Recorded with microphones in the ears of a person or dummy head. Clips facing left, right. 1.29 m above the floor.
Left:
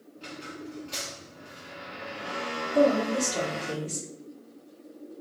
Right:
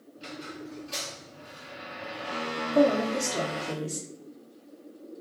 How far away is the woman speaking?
About 1.6 m.